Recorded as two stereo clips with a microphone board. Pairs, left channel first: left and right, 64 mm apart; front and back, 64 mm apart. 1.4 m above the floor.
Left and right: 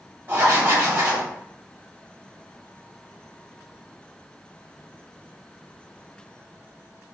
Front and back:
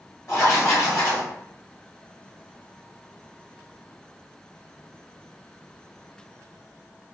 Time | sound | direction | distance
0.3 | writing | 35° right | 1.7 m